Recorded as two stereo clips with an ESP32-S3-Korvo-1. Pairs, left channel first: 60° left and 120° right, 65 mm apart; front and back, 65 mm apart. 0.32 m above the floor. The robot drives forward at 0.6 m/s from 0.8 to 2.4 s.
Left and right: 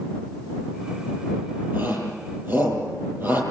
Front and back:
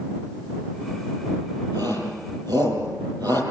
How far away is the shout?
About 9 m.